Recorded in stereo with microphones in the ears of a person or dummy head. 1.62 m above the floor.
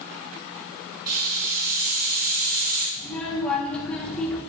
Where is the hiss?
40° right (ahead or behind), 5.5 m.